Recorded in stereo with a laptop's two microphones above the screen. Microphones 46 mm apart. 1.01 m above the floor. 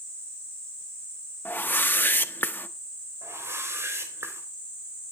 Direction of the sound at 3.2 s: 65° right (ahead or behind).